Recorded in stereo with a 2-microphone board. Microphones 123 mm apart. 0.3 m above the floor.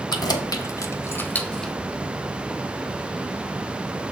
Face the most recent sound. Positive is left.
turn(degrees=5)  # may be behind; listen again after turning